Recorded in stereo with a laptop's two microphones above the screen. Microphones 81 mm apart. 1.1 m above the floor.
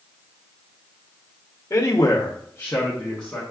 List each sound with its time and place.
1.7 s a man speaking: 40° left (ahead or behind), 0.8 m; by 3.4 s 10° left (ahead or behind), 1.1 m